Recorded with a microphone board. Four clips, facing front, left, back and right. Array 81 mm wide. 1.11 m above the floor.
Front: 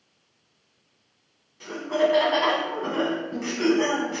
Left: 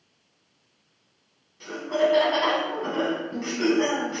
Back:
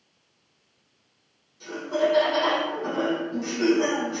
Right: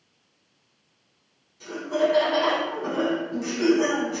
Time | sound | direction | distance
1.6 | laughter | 25° left | 0.8 m